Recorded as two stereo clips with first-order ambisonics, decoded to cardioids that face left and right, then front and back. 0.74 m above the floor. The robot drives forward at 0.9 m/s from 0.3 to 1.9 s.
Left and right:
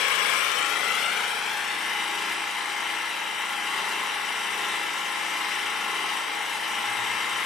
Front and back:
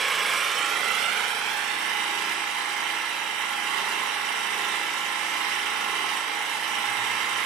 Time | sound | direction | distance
0.0 | an engine running | 110° left | 1.0 m